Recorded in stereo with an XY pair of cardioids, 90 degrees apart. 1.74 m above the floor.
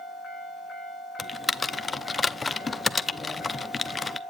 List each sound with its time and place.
1.2 s typing on a keyboard: 30° left, 0.5 m